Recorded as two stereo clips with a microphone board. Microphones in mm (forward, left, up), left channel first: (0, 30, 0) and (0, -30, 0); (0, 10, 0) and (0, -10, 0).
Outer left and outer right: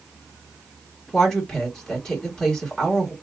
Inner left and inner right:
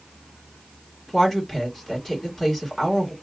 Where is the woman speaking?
10° left (ahead or behind), 1.5 m.